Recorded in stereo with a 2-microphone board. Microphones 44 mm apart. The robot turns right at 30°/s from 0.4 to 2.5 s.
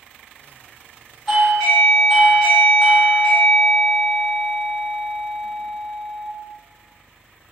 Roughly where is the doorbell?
Ahead.